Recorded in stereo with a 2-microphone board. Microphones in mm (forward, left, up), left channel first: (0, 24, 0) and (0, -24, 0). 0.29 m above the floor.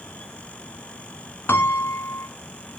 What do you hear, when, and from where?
1.5 s a piano: 60° left (ahead or behind), 0.9 m